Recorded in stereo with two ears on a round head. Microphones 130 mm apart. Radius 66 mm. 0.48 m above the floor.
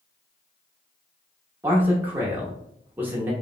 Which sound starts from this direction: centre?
A man speaking, at 1.6 s.